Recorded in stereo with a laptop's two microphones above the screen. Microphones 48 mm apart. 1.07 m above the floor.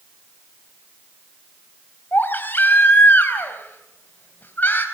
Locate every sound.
2.1 s a baby crying: 40° left (ahead or behind), 4 m